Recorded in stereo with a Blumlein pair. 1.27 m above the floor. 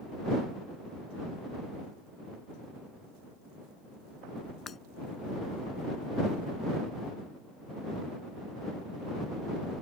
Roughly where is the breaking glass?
Ahead.